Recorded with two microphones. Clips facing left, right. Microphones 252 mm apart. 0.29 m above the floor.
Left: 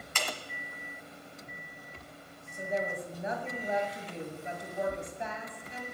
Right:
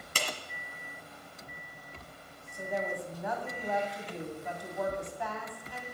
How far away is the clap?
About 1.5 m.